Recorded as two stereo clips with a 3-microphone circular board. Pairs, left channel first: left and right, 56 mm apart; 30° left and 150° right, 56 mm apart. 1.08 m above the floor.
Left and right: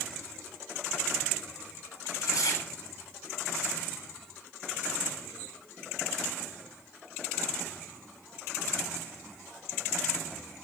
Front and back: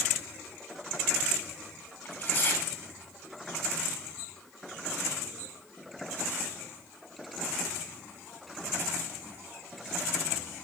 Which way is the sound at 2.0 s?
90° left.